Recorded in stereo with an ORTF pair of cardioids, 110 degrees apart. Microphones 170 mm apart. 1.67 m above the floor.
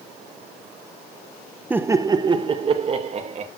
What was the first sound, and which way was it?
Laughter, 10° right.